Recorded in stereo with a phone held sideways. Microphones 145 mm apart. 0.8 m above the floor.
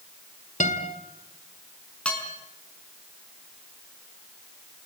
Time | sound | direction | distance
0.6 | a guitar | 60° left (ahead or behind) | 2.5 m
2.0 | dishes clattering | 5° left (ahead or behind) | 4.5 m